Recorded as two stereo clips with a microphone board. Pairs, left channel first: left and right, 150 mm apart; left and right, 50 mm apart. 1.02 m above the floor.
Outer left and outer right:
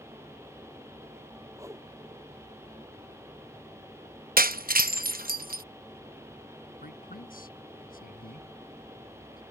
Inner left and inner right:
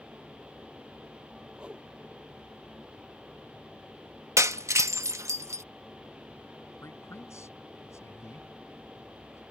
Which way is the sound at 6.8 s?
70° left (ahead or behind).